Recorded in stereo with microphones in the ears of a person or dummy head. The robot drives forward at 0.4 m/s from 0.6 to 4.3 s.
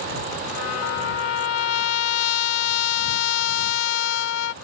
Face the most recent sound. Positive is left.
turn(degrees=75)  # may be behind; listen again after turning